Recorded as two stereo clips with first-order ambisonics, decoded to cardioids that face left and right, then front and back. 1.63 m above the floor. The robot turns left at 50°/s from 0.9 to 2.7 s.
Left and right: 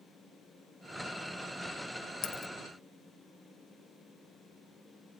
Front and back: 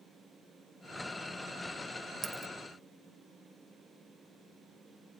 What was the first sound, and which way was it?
A dropped coin, 120° left.